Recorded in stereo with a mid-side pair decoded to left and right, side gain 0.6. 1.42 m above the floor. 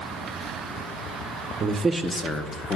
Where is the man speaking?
45° right, 1.1 m; by 2.8 s 40° left, 1.6 m.